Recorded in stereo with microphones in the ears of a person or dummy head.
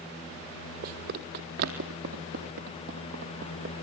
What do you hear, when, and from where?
0.8 s running footsteps: 55° right (ahead or behind), 2.5 m; by 3.7 s 50° right (ahead or behind), 4.5 m